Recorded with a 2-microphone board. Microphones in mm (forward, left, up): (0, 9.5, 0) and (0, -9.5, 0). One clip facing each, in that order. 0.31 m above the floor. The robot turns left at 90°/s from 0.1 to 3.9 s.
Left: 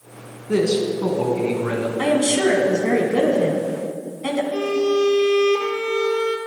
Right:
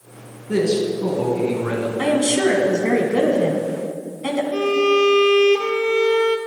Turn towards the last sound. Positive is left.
turn(degrees=-45)  # may be behind; listen again after turning